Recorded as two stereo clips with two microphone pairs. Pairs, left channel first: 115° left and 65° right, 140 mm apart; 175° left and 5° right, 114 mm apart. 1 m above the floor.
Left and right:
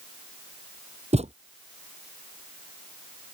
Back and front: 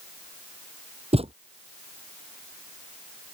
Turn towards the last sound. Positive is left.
turn(degrees=-30)